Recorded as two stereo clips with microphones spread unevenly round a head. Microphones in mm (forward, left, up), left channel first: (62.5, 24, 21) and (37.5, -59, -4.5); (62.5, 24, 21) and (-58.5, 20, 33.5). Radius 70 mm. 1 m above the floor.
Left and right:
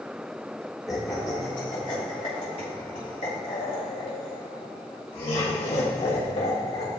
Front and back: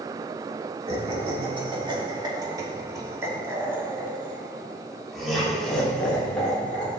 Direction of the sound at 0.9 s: 145° left.